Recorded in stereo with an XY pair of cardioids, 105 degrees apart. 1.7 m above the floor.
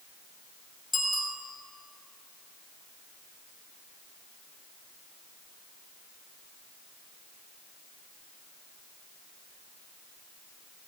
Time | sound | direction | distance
0.9 | a bicycle bell | 25° left | 7 m